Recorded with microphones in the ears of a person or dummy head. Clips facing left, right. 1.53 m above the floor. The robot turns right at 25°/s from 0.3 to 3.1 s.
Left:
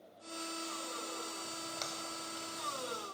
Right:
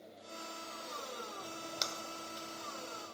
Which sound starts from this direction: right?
A splash, at 1.4 s.